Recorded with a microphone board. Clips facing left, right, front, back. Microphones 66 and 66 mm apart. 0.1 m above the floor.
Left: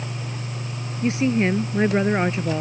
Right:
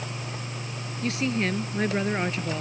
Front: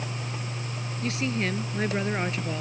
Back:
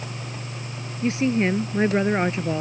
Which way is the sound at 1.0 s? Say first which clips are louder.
Left 6 dB, back 8 dB; 135° left.